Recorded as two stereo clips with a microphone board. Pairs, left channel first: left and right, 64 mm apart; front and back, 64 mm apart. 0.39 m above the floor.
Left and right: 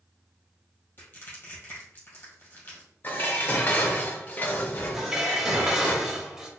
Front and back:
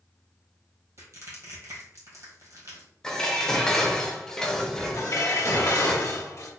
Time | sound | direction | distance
1.0 | crushing | 140° left | 1.8 m
3.0 | dishes clattering | 70° left | 0.6 m
4.9 | dishes clattering | 10° right | 0.9 m